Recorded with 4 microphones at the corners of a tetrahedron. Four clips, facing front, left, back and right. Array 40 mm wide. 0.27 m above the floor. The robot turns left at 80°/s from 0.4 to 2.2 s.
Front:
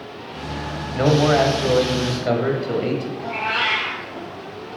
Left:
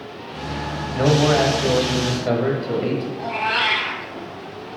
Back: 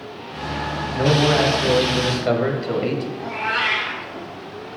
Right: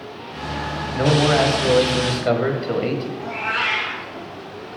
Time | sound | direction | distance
0.9 | a man speaking | straight ahead | 1.0 m
3.2 | a cat meowing | 80° left | 2 m